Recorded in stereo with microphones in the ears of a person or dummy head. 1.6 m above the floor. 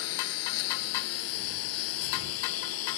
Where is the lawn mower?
75° left (ahead or behind); by 3.0 s 80° left.